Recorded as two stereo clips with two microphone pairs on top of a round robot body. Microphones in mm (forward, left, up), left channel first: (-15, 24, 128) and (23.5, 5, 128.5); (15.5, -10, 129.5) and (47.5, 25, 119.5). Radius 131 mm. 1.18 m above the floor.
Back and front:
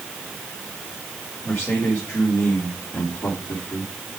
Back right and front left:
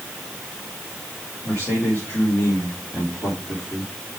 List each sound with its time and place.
1.4 s a man speaking: 175° right, 4 m; by 3.9 s 170° left, 3 m